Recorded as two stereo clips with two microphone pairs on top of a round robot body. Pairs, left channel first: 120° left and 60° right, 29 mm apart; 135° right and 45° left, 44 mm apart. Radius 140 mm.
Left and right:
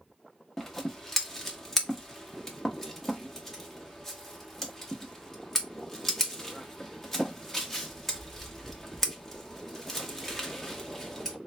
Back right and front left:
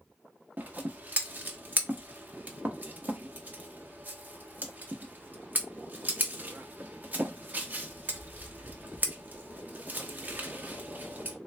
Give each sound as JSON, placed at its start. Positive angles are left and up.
{"t": 0.6, "sound": "scissors", "azimuth_deg": 65, "distance_m": 1.2}